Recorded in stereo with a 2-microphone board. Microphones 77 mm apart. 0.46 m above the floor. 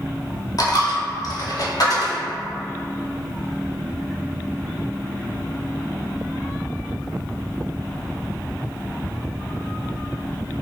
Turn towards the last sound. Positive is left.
turn(degrees=55)  # may be behind; listen again after turning